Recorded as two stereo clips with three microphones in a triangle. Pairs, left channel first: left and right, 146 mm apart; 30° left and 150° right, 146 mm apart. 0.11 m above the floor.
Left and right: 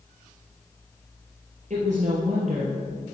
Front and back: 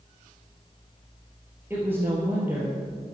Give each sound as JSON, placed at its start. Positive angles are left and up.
{"t": 1.7, "sound": "a woman speaking", "azimuth_deg": -75, "distance_m": 2.5}